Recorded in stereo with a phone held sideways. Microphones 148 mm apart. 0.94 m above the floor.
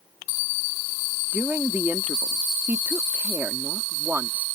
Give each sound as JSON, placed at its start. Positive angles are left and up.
{"t": 1.3, "sound": "a woman speaking", "side_deg": -15}